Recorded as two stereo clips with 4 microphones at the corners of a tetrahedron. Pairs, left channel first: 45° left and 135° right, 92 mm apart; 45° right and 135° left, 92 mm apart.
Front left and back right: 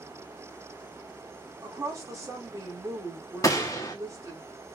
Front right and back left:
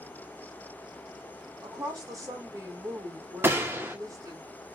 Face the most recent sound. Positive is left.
turn(degrees=80)